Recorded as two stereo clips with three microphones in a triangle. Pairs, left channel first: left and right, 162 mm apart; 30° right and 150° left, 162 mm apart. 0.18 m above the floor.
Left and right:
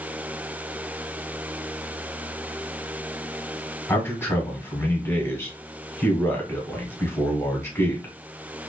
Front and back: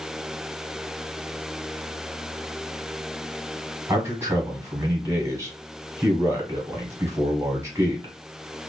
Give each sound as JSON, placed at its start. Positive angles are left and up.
{"t": 3.9, "sound": "a man speaking", "azimuth_deg": 125, "distance_m": 1.2}